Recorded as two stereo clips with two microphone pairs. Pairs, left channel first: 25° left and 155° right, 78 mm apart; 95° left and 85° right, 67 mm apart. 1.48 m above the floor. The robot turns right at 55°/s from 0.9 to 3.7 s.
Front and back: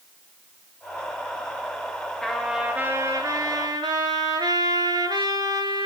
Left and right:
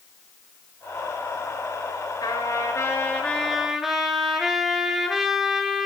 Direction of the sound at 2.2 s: 110° left.